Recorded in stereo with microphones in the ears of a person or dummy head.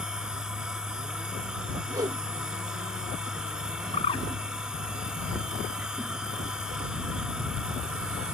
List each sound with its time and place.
0.0 s a machine running: 5° right (ahead or behind)
1.9 s a whoosh: 20° right (ahead or behind)
3.9 s a bird: 25° left (ahead or behind)